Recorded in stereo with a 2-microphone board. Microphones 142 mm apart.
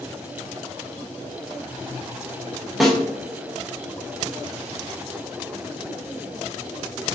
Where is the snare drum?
Centre (ahead or behind), 0.5 m.